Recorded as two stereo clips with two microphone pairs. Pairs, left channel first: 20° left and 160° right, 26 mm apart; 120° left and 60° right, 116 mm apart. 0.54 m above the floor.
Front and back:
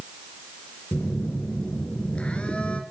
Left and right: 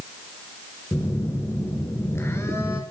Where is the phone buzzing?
55° left, 2.5 m.